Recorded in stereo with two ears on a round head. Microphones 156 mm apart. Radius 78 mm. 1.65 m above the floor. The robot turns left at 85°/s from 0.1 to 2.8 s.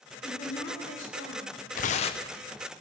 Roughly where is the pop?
No pop in this recording.